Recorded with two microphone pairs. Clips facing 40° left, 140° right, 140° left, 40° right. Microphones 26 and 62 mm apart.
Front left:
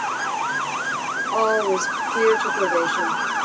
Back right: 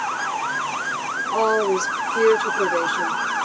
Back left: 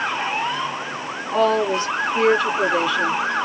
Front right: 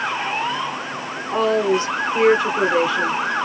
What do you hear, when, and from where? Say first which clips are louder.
1.3 s a woman speaking: even, even; 50° right, 1.5 m